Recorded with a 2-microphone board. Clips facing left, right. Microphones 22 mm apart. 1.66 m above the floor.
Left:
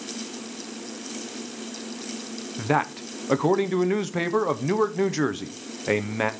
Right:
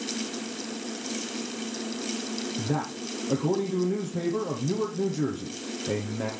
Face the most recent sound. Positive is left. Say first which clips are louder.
# left 10 dB
turn(degrees=65)  # may be behind; listen again after turning